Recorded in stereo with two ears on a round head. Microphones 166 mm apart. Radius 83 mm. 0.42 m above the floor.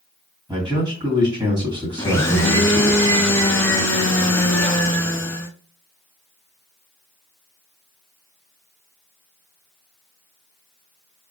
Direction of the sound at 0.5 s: 25° right (ahead or behind).